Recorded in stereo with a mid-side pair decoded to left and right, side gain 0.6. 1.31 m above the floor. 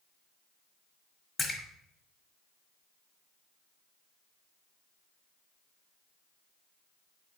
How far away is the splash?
About 1.2 m.